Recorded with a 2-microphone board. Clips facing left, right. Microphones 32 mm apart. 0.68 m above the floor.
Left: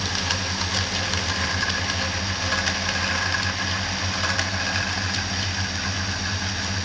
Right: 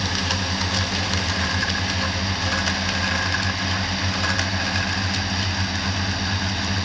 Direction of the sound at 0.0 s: 25° right (ahead or behind).